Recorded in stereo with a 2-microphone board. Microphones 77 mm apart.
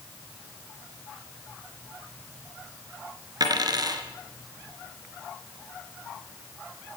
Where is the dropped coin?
50° right (ahead or behind), 3 m.